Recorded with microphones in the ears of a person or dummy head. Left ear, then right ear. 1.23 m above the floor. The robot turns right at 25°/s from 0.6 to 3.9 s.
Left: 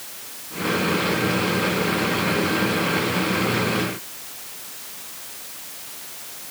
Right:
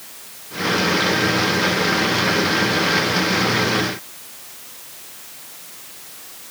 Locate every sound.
Only background noise.